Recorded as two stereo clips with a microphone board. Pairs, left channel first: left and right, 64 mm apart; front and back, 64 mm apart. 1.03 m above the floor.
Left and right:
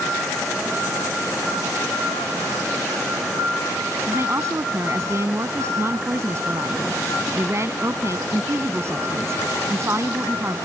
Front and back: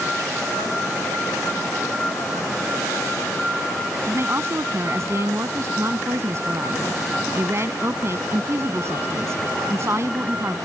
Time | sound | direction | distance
4.1 | a woman speaking | 135° right | ?